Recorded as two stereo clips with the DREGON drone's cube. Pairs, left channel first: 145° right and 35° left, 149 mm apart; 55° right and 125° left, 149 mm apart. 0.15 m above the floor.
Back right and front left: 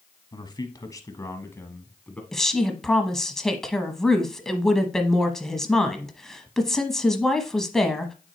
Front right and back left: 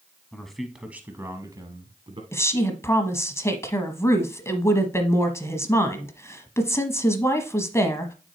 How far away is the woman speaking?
About 1.0 m.